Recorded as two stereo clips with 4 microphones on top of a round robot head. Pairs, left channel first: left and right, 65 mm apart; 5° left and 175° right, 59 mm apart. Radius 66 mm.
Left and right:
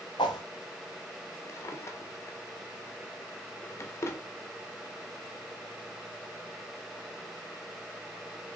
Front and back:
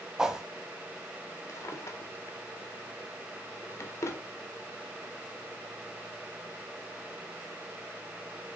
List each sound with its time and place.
0.2 s a whoosh: 105° left, 1.0 m
1.5 s a drawer: 40° left, 1.5 m